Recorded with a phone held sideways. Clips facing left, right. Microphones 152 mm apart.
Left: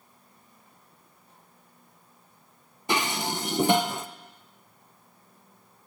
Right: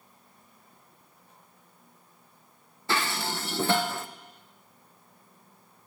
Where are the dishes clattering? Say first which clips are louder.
Left 2 dB; 15° left (ahead or behind), 0.5 m.